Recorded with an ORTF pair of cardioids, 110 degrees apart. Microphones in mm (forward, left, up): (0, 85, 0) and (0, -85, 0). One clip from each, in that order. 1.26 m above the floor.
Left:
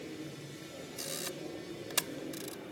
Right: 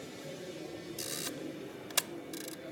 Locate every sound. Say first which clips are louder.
1.0 s a camera shutter: even; 5° right